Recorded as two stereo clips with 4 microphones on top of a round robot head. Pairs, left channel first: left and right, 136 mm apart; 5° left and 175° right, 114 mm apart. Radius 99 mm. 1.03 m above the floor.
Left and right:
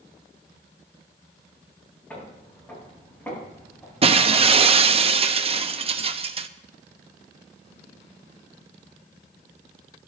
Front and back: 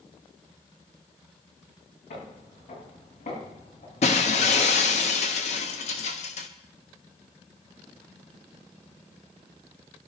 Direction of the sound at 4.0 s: 40° right.